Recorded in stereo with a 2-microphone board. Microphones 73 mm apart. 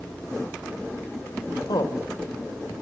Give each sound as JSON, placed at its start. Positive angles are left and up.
{"t": 1.7, "sound": "a woman speaking", "side_deg": 70, "distance_m": 3.5}